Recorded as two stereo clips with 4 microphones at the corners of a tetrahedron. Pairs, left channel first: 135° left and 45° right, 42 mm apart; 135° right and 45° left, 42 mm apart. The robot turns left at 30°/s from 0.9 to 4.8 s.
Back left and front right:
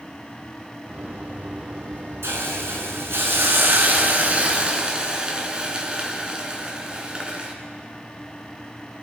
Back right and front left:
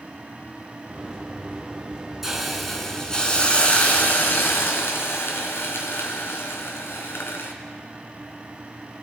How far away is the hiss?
About 2.5 m.